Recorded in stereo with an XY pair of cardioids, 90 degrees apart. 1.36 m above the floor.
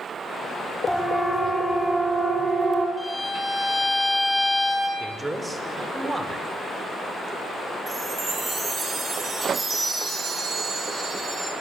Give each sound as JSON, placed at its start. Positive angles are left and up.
{"t": 0.9, "sound": "a siren", "azimuth_deg": 0, "distance_m": 7.0}
{"t": 3.0, "sound": "a violin", "azimuth_deg": 0, "distance_m": 9.5}
{"t": 5.0, "sound": "a man speaking", "azimuth_deg": -20, "distance_m": 5.5}
{"t": 7.9, "sound": "a chime", "azimuth_deg": -30, "distance_m": 9.0}